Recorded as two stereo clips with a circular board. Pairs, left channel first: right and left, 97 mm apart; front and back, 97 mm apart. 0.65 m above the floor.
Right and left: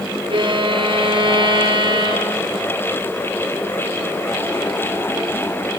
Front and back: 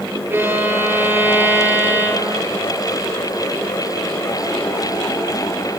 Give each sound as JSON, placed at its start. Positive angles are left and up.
{"t": 0.3, "sound": "a violin", "azimuth_deg": 115, "distance_m": 5.5}